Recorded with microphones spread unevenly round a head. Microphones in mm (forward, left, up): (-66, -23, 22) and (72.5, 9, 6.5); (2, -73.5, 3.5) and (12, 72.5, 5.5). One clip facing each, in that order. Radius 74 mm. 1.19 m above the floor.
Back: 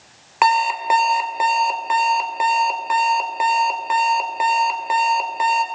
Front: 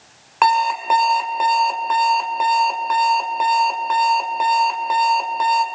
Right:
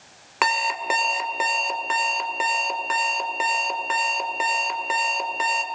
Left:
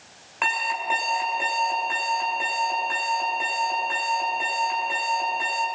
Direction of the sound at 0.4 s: 90° right.